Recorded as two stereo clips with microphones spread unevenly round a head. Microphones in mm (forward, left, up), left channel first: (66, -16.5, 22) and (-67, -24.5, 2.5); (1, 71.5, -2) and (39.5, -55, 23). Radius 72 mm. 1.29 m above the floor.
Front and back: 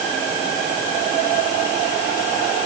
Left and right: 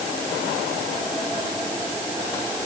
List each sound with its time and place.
Only background noise.